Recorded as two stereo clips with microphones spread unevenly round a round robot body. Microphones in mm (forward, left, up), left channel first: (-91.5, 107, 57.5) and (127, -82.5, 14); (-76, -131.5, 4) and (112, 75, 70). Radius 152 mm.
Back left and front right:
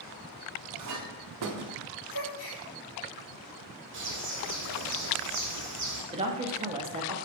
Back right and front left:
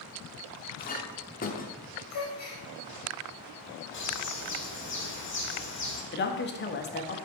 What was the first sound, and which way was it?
A clink, 70° right.